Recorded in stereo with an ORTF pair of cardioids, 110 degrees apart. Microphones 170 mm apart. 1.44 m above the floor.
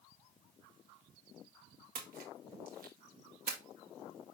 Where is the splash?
60° right, 2 m.